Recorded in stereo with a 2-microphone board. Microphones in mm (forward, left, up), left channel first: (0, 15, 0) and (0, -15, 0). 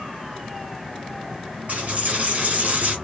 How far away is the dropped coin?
About 1.3 m.